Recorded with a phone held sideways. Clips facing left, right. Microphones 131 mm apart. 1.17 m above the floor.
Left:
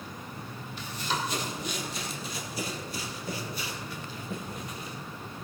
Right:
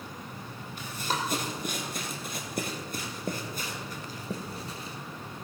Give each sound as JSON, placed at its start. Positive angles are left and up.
{"t": 0.8, "sound": "running footsteps", "side_deg": -50, "distance_m": 2.5}